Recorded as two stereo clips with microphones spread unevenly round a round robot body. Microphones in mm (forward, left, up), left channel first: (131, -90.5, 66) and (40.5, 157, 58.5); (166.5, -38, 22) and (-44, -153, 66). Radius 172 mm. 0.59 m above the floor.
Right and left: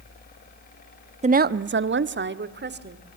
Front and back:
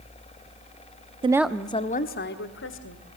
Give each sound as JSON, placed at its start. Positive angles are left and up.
{"t": 1.2, "sound": "a woman speaking", "azimuth_deg": 140, "distance_m": 0.7}